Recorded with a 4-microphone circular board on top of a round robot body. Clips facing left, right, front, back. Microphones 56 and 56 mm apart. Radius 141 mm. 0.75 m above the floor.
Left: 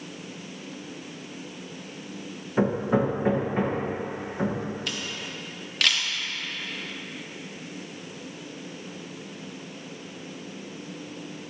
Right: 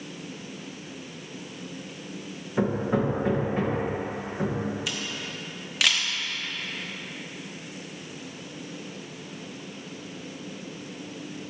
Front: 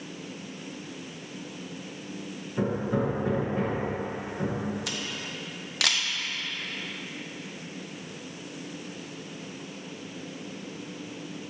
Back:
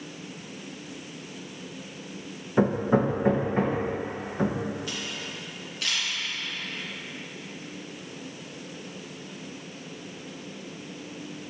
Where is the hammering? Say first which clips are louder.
Left 2 dB, back 5 dB; 160° left, 1.2 m.